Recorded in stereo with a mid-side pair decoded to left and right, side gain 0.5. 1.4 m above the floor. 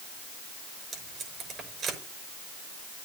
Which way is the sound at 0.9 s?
55° right.